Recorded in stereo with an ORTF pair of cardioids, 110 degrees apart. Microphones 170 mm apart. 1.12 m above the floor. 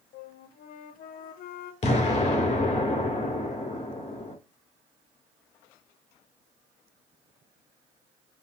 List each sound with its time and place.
0.1 s a flute: 60° left, 0.6 m
1.8 s an explosion: 40° left, 2 m